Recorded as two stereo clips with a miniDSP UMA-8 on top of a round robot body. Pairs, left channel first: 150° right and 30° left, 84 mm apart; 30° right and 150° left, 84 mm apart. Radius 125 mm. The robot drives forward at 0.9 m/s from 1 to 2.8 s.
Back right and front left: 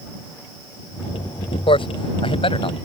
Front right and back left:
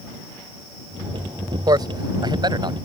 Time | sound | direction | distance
1.7 | a man speaking | 165° right | ?